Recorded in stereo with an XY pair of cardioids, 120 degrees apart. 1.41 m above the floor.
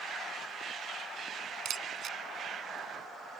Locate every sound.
1.6 s a camera shutter: 55° right